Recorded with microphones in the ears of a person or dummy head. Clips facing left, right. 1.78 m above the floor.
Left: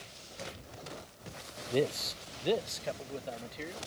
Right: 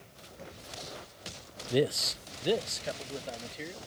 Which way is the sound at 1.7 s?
15° right (ahead or behind).